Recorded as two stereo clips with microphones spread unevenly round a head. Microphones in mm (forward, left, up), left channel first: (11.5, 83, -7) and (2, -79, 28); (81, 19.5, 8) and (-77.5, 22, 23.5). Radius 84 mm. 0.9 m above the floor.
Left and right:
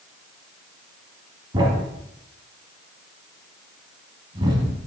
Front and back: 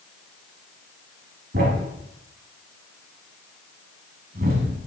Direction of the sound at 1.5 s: 150° right.